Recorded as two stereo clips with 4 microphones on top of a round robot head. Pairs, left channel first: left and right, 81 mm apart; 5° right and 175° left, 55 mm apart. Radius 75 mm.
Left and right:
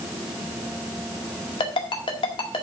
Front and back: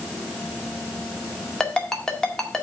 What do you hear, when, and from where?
1.6 s a ringtone: 75° left, 1.9 m